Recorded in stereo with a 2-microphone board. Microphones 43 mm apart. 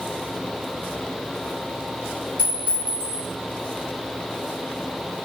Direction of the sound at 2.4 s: 45° right (ahead or behind).